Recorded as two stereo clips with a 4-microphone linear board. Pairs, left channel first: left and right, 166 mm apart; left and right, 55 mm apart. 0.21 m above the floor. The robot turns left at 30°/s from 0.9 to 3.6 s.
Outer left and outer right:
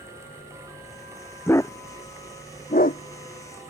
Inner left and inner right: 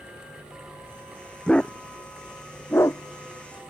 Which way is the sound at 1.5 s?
15° left (ahead or behind).